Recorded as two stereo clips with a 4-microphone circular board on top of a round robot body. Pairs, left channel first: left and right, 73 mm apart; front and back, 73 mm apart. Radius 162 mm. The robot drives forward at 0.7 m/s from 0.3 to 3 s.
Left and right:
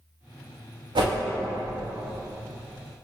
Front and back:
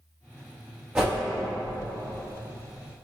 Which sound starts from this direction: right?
A whoosh, at 0.9 s.